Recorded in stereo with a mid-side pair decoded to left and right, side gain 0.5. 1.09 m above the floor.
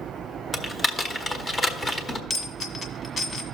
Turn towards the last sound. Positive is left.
turn(degrees=30)